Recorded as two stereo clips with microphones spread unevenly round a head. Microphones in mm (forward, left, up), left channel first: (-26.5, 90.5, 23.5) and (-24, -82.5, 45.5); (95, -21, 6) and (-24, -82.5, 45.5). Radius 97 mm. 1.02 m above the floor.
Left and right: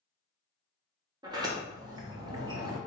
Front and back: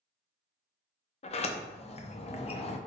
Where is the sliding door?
25° right, 0.6 m.